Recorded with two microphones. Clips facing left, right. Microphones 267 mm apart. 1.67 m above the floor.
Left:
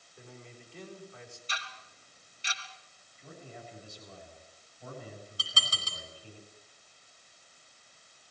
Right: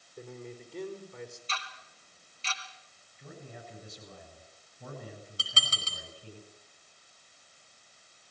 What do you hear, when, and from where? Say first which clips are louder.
0.2 s a man speaking: right 8 dB; 45° right (ahead or behind), 4 m
1.5 s ticking: right 2 dB; 15° left (ahead or behind), 2.5 m
3.2 s a man speaking: right 1 dB; 55° right (ahead or behind), 8 m
5.4 s dishes clattering: right 1 dB; 25° right (ahead or behind), 4.5 m